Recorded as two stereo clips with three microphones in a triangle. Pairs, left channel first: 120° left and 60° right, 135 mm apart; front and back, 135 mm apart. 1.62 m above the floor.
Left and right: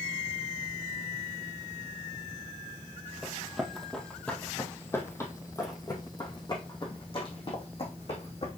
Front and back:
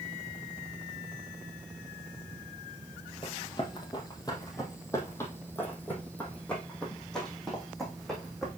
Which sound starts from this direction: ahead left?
Running footsteps, at 3.2 s.